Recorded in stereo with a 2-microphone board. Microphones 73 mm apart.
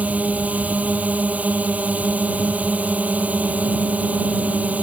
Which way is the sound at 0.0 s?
20° right (ahead or behind).